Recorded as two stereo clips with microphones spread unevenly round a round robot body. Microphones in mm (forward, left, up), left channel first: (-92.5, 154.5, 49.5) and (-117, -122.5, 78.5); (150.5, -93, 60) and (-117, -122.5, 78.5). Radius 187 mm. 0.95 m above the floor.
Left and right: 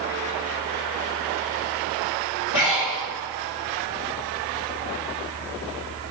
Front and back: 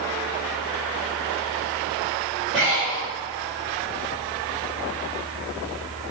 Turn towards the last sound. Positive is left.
turn(degrees=95)